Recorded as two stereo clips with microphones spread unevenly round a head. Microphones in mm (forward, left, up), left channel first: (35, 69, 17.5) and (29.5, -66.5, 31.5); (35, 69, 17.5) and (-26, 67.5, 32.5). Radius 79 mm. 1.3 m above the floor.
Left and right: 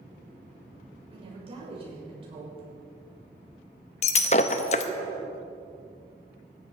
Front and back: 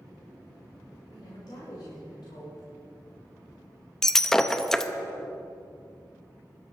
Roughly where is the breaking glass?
Left.